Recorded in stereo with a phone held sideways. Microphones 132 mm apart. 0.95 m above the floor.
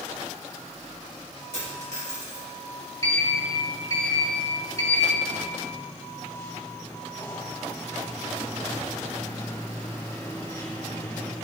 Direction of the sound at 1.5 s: 60° right (ahead or behind).